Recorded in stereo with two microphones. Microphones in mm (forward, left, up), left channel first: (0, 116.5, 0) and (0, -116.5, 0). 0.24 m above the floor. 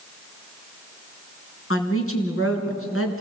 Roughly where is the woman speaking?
Left.